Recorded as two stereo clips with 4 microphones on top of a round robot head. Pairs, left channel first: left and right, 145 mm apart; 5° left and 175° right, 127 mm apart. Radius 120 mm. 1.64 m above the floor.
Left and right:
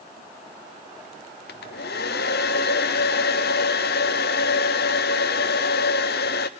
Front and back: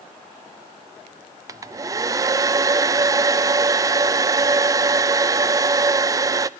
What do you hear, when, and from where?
1.5 s a hair dryer: 120° left, 0.5 m